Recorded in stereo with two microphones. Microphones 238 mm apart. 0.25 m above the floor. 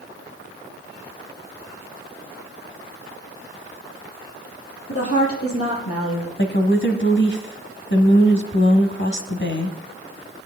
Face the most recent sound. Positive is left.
turn(degrees=50)  # may be behind; listen again after turning